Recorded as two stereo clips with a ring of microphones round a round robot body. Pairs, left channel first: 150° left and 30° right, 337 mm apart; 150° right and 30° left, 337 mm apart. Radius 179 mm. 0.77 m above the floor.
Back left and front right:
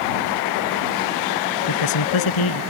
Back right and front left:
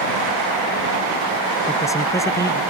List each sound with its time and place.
1.7 s a man speaking: 130° left